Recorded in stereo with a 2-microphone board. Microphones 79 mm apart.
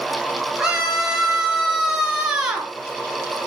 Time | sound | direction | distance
0.6 | a scream | 5° right (ahead or behind) | 7.5 m